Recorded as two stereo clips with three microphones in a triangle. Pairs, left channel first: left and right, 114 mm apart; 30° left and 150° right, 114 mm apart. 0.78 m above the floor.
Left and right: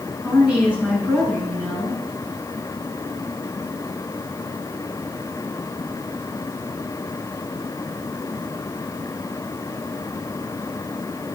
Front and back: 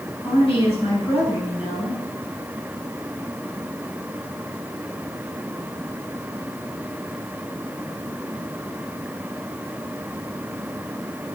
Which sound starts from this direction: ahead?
A woman speaking, at 0.2 s.